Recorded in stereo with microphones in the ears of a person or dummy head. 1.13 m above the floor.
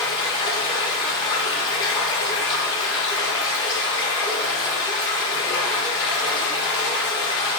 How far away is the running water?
About 1.2 m.